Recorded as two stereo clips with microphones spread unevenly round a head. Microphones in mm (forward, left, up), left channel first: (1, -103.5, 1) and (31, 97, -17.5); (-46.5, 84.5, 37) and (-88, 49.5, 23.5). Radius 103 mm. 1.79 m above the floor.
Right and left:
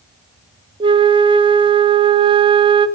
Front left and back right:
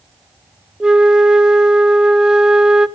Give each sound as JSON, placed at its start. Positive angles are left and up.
{"t": 0.8, "sound": "a flute", "azimuth_deg": 125, "distance_m": 0.6}